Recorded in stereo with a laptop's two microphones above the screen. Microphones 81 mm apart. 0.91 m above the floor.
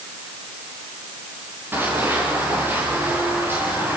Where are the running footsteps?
25° right (ahead or behind), 8 m.